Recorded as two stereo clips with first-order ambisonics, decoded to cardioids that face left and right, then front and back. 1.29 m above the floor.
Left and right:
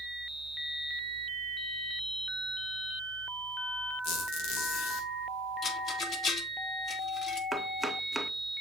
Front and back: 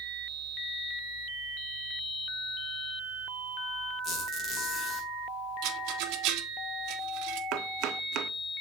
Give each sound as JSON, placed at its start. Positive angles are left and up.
{"t": 4.0, "sound": "a squeak", "azimuth_deg": 70, "distance_m": 4.5}
{"t": 5.6, "sound": "a rattle", "azimuth_deg": 155, "distance_m": 1.2}
{"t": 7.5, "sound": "chopping", "azimuth_deg": -175, "distance_m": 0.8}